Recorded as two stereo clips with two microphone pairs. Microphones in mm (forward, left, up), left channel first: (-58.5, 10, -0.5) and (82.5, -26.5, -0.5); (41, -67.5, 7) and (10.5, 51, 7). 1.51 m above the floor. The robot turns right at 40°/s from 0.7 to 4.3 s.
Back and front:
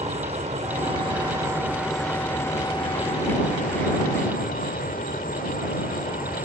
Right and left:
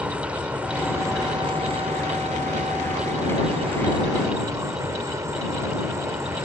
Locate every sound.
0.0 s an insect: 25° left; by 6.5 s 170° left